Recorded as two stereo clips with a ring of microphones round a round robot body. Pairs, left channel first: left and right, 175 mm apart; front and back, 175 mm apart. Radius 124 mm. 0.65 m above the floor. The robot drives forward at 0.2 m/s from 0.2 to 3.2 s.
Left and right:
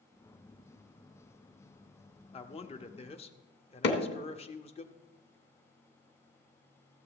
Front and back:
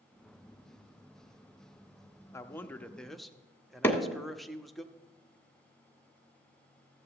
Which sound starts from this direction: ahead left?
A man speaking, at 2.3 s.